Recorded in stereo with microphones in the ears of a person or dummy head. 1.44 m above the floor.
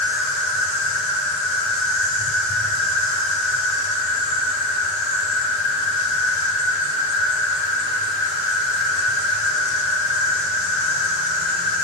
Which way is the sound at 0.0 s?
75° left (ahead or behind).